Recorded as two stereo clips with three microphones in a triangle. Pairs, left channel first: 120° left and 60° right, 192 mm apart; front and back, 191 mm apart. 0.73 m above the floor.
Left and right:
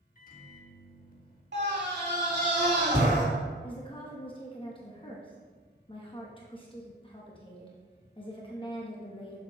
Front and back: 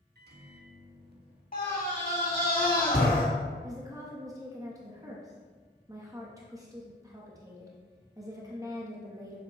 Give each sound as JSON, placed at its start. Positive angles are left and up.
{"t": 0.1, "sound": "a microwave", "azimuth_deg": 155, "distance_m": 0.8}
{"t": 1.5, "sound": "a scream", "azimuth_deg": -40, "distance_m": 2.0}
{"t": 3.6, "sound": "a woman speaking", "azimuth_deg": 135, "distance_m": 0.8}